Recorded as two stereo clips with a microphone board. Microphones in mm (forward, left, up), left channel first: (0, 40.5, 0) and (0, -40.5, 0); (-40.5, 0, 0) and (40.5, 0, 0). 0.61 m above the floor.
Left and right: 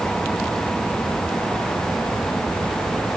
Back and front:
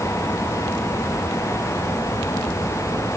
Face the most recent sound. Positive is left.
No sound to turn to.